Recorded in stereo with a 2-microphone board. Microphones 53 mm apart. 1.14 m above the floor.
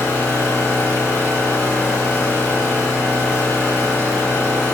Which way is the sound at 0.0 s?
65° left (ahead or behind).